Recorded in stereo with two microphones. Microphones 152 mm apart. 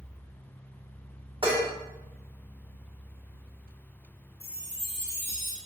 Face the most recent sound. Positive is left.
turn(degrees=-80)